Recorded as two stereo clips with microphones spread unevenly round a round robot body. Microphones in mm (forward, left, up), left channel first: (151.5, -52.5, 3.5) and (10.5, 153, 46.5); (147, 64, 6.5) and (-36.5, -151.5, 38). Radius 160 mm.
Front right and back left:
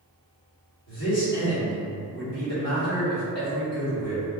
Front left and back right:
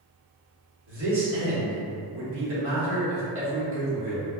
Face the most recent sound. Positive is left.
turn(degrees=-85)